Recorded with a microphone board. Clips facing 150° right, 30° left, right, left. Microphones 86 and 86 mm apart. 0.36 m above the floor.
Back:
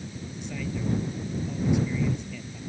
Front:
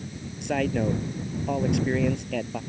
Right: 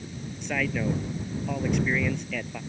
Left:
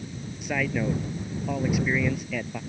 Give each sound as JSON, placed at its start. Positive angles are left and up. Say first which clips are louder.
{"t": 0.4, "sound": "a man speaking", "louder": "front 8 dB, left 1 dB", "azimuth_deg": 5}